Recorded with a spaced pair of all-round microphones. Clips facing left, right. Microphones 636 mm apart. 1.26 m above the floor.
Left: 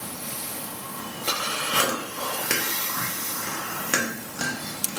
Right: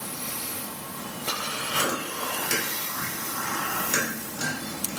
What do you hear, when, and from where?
1.7 s chewing: 80° left, 0.8 m